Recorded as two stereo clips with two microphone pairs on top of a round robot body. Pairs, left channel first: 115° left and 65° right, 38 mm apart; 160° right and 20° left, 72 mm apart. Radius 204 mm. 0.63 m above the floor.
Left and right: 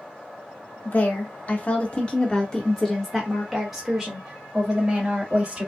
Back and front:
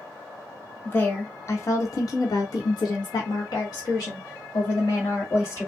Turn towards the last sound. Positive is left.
turn(degrees=-125)